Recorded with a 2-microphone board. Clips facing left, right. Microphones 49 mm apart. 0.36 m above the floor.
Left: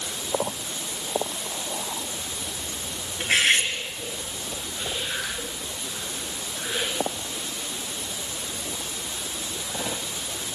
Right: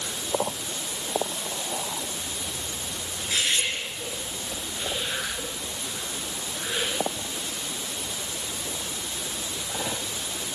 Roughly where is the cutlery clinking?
Left.